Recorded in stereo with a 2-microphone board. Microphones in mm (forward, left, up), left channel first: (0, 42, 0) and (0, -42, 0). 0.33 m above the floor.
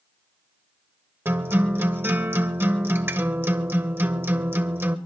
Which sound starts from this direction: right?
A guitar, at 1.2 s.